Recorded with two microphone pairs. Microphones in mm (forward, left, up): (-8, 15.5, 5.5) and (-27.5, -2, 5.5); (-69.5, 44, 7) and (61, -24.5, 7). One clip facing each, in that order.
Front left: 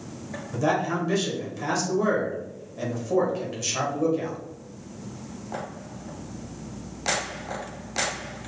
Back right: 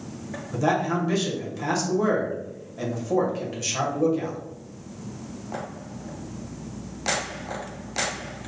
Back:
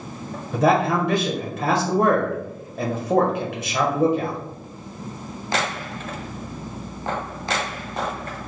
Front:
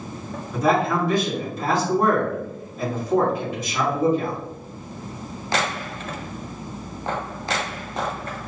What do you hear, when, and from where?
0.5 s a man speaking: 135° left, 1.5 m